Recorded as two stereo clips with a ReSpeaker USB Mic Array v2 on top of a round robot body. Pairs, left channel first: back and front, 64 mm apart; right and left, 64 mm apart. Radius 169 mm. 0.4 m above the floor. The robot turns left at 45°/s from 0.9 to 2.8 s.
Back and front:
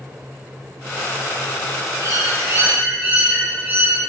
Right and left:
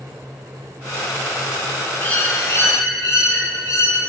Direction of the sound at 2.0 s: 25° right.